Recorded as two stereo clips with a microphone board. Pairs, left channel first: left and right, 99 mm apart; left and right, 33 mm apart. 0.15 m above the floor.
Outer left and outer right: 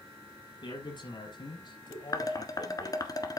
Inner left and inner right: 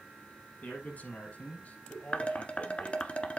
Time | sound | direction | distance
0.6 | a man speaking | 55° left (ahead or behind) | 5 m
2.1 | dishes clattering | 40° left (ahead or behind) | 1.2 m